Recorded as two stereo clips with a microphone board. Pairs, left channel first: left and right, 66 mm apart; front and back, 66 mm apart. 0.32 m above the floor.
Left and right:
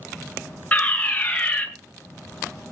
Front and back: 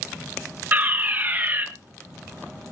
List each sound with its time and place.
0.7 s a fire alarm: 145° left, 2.5 m